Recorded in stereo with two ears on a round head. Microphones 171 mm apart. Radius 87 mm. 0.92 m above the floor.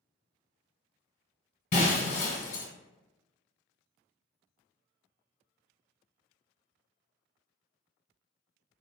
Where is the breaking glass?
40° left (ahead or behind), 1.1 m.